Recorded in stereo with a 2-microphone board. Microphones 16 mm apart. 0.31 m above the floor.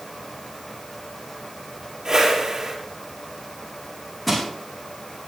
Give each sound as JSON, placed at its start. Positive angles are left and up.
{"t": 2.0, "sound": "a whoosh", "side_deg": -35, "distance_m": 4.5}
{"t": 4.3, "sound": "crushing", "side_deg": 0, "distance_m": 6.5}